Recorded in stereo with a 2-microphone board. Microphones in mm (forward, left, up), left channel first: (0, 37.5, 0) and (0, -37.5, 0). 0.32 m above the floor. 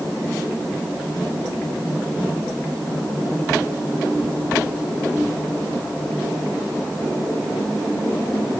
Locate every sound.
Only background noise.